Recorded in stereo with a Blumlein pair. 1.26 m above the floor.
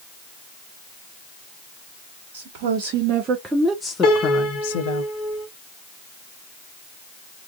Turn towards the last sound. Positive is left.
turn(degrees=35)